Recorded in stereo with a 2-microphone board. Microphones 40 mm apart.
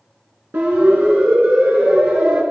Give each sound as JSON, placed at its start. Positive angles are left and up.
{"t": 0.5, "sound": "a siren", "side_deg": -75, "distance_m": 6.5}